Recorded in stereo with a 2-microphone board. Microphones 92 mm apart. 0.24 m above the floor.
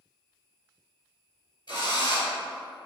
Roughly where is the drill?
Left.